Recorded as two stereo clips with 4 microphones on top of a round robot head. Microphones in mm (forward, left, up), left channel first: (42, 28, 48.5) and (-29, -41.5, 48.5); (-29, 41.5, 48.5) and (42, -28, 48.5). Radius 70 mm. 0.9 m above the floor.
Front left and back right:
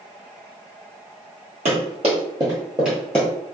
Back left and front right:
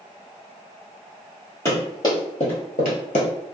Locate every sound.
1.6 s running footsteps: 160° right, 1.9 m; by 3.3 s 115° left, 1.5 m